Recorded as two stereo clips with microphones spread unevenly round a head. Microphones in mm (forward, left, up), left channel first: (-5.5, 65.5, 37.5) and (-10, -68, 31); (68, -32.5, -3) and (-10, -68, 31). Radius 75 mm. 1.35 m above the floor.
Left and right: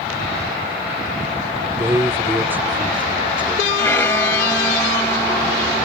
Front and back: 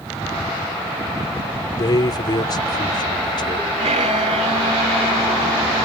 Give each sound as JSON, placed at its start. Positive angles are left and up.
{"t": 1.7, "sound": "a man speaking", "azimuth_deg": -20}
{"t": 3.8, "sound": "a violin", "azimuth_deg": 160}